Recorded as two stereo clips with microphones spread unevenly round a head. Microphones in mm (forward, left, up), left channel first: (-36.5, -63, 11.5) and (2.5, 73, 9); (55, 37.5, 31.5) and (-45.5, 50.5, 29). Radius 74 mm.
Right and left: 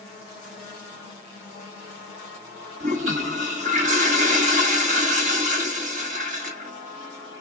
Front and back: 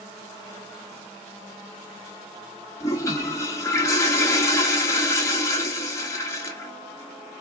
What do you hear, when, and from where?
2.8 s a toilet flushing: 45° left, 1.6 m